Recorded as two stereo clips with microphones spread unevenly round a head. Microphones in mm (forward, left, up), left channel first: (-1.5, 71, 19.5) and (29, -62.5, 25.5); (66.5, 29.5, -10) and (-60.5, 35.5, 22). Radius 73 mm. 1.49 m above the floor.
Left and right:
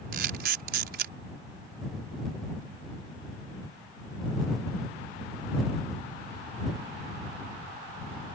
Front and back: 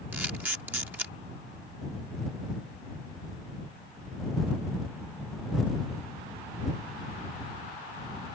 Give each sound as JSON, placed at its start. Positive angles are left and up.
{"t": 0.1, "sound": "a camera shutter", "azimuth_deg": -105}